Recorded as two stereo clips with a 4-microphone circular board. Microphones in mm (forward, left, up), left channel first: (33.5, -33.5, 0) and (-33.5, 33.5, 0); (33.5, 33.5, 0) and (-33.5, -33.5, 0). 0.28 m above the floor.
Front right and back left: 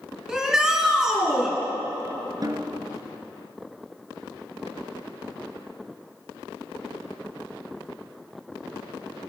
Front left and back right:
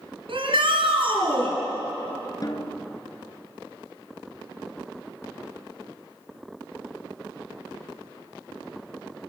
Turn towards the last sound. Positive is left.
turn(degrees=90)